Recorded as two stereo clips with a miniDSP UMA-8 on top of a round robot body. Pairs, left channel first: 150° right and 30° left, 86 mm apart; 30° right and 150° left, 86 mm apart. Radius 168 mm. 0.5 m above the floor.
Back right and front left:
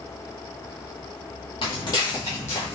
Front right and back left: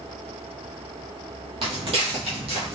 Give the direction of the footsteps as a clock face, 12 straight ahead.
6 o'clock.